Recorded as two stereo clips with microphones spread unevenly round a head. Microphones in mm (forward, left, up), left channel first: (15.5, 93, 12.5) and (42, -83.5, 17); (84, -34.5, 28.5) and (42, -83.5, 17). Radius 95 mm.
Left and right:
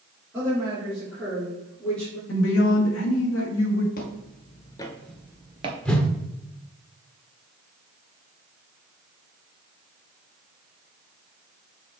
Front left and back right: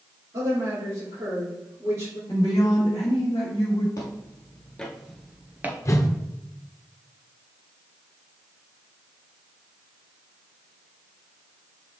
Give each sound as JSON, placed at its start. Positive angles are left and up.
{"t": 0.3, "sound": "a woman speaking", "azimuth_deg": -155, "distance_m": 3.5}
{"t": 2.3, "sound": "a woman speaking", "azimuth_deg": 110, "distance_m": 1.7}
{"t": 4.0, "sound": "footsteps", "azimuth_deg": 80, "distance_m": 1.3}
{"t": 5.8, "sound": "a whoosh", "azimuth_deg": 10, "distance_m": 1.2}